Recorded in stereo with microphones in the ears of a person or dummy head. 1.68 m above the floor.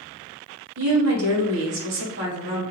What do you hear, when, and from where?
0.8 s a woman speaking: 65° right (ahead or behind), 1.2 m; by 2.6 s 50° right (ahead or behind), 1.4 m